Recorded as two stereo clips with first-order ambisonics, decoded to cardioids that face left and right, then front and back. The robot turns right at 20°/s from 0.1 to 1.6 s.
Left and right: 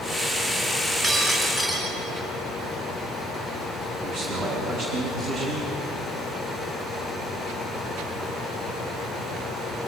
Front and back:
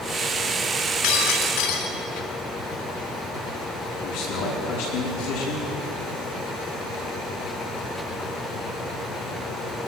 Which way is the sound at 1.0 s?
20° right.